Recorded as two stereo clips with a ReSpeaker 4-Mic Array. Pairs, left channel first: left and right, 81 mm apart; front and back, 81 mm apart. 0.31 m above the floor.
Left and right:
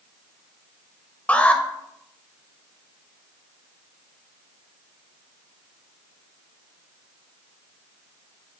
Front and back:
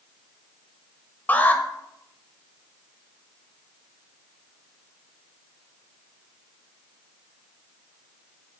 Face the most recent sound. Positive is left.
turn(degrees=40)